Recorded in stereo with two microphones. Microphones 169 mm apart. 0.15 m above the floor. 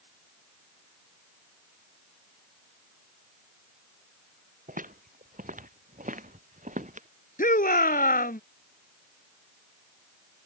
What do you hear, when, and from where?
4.7 s footsteps: 50° right (ahead or behind)
7.4 s a shout: 55° left (ahead or behind)